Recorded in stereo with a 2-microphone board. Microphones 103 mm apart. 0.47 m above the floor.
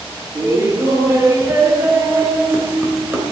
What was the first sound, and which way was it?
Laughter, 30° right (ahead or behind).